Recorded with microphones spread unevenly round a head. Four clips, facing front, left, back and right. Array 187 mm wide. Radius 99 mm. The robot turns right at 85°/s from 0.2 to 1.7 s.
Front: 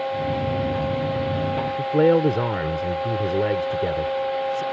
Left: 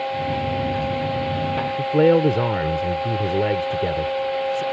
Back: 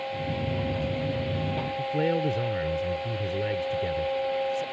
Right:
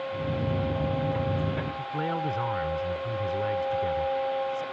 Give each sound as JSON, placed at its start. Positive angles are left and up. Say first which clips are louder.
{"t": 1.8, "sound": "a man speaking", "louder": "left 18 dB, front 10 dB", "azimuth_deg": 50}